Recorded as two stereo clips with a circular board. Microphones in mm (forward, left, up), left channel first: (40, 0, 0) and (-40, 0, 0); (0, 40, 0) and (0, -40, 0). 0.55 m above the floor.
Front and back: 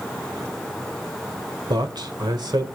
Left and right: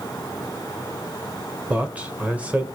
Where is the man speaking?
160° right, 1.6 m.